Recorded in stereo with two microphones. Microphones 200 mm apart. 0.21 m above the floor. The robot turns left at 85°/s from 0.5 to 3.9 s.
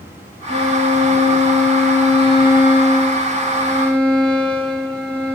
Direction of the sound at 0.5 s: 65° right.